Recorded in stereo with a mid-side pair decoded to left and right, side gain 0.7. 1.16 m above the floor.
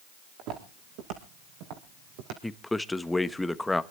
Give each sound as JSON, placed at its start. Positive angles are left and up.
{"t": 0.4, "sound": "footsteps", "azimuth_deg": -65, "distance_m": 4.0}
{"t": 2.4, "sound": "a man speaking", "azimuth_deg": 5, "distance_m": 1.0}